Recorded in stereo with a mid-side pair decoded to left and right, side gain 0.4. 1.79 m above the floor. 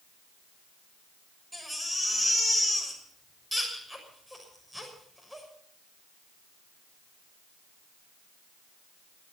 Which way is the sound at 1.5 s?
5° right.